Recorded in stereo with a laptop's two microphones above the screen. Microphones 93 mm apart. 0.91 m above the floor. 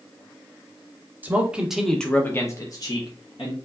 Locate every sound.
1.2 s a man speaking: 20° right (ahead or behind), 0.9 m; by 3.5 s 55° left (ahead or behind), 1.0 m